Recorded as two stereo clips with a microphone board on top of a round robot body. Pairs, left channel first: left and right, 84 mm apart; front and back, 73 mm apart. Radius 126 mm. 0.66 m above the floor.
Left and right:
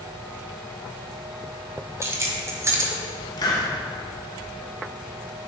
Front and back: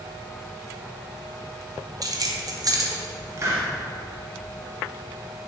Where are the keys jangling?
145° right, 1.1 m.